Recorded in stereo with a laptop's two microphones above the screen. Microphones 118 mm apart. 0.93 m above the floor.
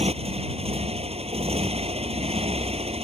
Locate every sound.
0.0 s a motorcycle: 60° right (ahead or behind)